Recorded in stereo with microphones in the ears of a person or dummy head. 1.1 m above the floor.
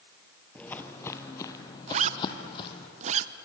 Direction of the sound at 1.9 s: 30° right (ahead or behind).